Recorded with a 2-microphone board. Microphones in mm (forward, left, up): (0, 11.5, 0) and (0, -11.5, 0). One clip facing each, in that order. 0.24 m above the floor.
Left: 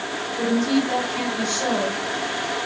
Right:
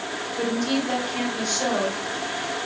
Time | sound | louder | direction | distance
0.4 | a woman speaking | left 4 dB | 30° right (ahead or behind) | 4 m